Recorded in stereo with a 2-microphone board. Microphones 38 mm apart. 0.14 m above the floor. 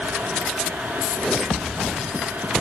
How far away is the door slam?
I don't hear a door slam.